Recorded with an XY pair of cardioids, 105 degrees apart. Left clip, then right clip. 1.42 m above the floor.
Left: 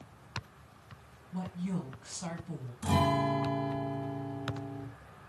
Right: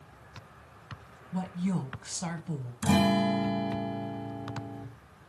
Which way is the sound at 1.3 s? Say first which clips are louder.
Right 5 dB; 45° right.